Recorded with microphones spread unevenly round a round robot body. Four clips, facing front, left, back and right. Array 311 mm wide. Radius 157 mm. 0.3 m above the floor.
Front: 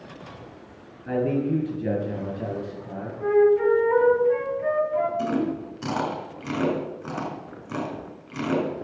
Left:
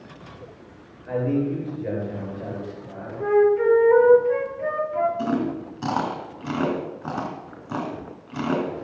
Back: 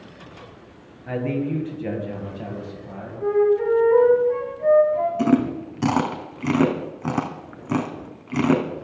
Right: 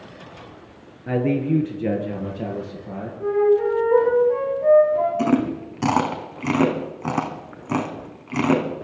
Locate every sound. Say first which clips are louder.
1.1 s a man speaking: right 3 dB, front 1 dB; 90° right, 5.5 m; by 3.1 s 80° right, 7 m
3.2 s a flute: even, even; 80° left, 5.5 m
5.2 s chewing: right 4 dB, back 6 dB; 160° right, 2.5 m